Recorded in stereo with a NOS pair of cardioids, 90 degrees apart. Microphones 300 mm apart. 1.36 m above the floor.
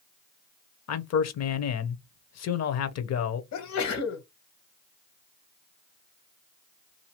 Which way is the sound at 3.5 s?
65° left.